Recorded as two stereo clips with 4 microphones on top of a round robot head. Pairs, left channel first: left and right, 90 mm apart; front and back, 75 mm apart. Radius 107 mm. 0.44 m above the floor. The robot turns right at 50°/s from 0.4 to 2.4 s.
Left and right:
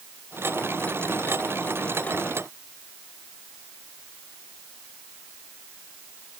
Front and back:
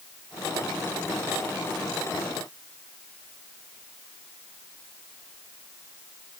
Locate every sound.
Only background noise.